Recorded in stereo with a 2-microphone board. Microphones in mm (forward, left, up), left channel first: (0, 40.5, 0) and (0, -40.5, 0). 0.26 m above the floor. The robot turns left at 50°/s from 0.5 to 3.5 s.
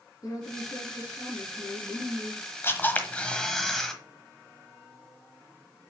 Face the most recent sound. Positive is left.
turn(degrees=10)